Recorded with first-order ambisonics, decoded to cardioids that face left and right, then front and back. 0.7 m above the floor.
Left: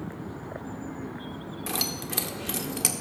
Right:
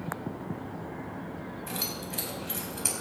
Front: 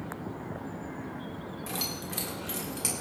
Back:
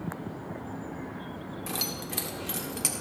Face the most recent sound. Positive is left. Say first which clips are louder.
# left 5 dB, back 2 dB
turn(degrees=100)